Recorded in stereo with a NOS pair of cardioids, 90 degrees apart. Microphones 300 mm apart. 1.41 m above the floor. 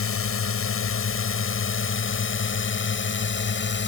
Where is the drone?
50° left; by 3.9 s 40° left.